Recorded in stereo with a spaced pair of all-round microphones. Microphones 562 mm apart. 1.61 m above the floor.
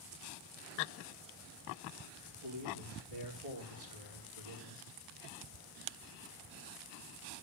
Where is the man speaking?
90° right, 5 m.